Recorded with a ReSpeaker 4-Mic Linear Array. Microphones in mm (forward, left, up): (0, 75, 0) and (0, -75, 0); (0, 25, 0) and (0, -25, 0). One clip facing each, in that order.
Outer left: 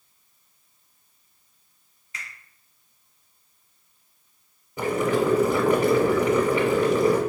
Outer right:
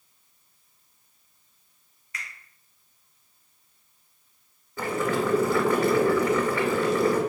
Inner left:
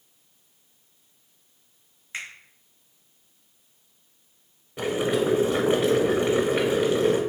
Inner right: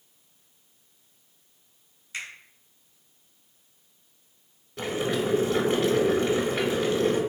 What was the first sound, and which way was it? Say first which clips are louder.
A finger snap: outer right 1 dB, inner left 1 dB; 30° left (ahead or behind).